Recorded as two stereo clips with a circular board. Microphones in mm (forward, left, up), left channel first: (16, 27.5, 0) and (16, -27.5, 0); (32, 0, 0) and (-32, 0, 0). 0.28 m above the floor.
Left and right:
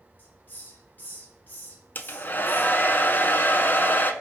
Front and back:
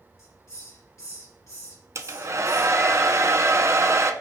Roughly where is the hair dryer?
Behind left.